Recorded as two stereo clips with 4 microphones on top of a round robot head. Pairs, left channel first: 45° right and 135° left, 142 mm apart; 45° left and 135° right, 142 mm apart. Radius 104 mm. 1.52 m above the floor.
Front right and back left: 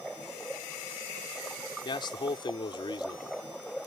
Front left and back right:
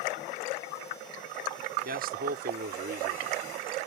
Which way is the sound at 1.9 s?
105° right.